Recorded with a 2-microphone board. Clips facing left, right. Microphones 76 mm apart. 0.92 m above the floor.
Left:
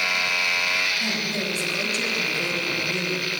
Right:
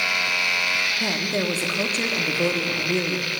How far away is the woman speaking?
About 1.4 m.